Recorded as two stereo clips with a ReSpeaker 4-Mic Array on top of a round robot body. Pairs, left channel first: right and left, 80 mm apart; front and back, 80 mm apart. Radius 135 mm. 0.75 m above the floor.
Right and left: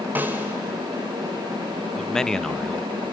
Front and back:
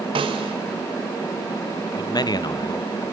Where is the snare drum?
160° left, 1.2 m.